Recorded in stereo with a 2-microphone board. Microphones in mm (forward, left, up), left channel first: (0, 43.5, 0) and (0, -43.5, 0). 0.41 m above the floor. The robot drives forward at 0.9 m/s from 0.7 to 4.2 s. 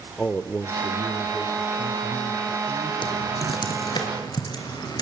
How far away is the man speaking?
About 0.8 m.